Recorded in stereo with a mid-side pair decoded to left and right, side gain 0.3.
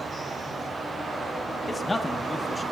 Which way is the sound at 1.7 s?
40° left.